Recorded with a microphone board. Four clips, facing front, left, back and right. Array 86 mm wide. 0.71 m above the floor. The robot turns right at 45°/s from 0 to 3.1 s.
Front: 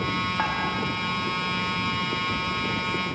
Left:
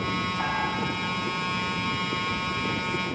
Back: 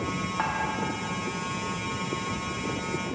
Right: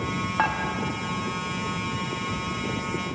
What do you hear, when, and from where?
0.4 s dishes clattering: 85° right, 0.7 m; by 0.6 s 80° right, 0.7 m